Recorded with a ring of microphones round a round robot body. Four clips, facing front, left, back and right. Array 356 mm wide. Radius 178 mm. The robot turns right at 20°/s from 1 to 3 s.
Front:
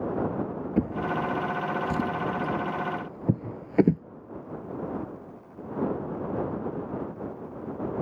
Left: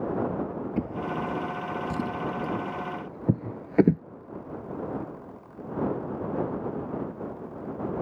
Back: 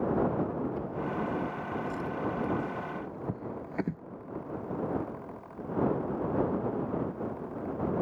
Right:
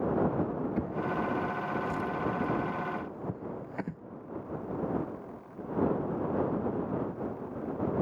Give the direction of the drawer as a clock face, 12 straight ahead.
12 o'clock.